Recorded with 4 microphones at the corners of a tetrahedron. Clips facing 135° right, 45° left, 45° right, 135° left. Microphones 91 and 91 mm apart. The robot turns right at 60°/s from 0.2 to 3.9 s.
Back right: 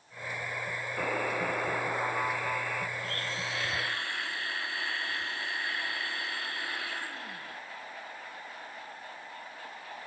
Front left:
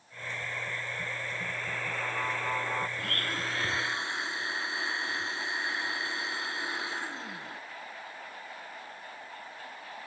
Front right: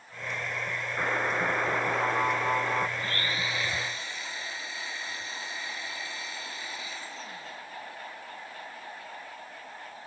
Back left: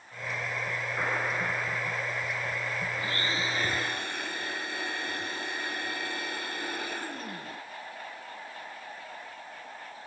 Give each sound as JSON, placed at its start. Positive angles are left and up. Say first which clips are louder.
{"t": 1.0, "sound": "a buzzer", "louder": "back right 7 dB, front right 3 dB", "azimuth_deg": -130}
{"t": 3.0, "sound": "a blender", "louder": "front left 2 dB, back left 1 dB", "azimuth_deg": 55}